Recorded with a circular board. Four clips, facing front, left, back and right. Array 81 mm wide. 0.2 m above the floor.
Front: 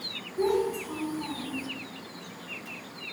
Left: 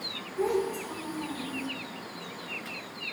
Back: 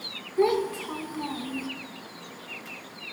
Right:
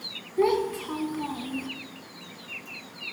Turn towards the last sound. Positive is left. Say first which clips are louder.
# right 4 dB, back 2 dB
turn(degrees=-130)